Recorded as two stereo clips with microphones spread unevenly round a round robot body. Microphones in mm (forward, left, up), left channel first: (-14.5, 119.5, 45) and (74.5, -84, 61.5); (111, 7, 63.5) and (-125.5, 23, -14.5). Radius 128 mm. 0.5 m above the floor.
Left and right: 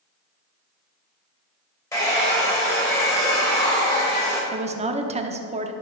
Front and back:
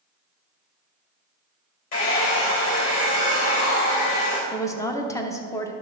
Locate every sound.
1.9 s a hair dryer: 40° left, 3 m
4.5 s a woman speaking: 105° right, 0.9 m